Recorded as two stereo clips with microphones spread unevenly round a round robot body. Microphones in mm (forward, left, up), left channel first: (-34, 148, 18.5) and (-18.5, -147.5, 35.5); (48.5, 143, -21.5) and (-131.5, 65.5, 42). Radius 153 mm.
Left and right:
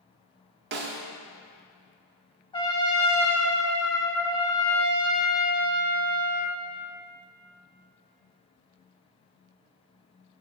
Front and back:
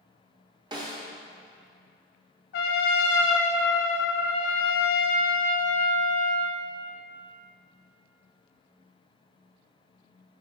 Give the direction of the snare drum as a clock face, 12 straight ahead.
4 o'clock.